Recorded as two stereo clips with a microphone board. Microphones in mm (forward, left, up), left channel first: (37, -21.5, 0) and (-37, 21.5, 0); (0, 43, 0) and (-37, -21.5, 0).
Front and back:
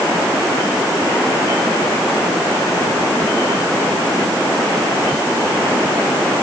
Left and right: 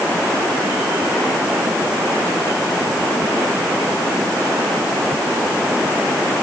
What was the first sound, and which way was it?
Only background noise.